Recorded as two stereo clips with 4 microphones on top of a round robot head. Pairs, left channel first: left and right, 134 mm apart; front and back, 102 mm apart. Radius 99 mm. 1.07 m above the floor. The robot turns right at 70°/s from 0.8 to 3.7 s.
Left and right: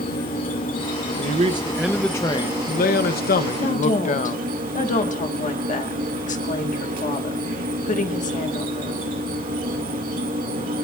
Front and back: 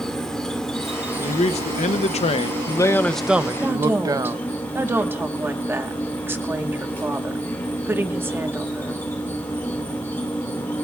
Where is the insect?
85° left, 2 m; by 10.8 s 75° right, 2 m.